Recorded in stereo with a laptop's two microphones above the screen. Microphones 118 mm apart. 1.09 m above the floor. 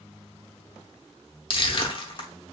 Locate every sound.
1.5 s crushing: 45° left (ahead or behind), 1.0 m